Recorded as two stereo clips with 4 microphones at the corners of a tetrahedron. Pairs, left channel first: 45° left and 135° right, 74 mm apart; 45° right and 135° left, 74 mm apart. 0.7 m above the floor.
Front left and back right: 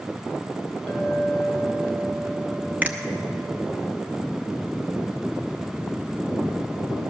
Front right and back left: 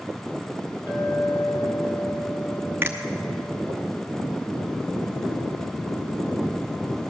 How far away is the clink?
About 4 m.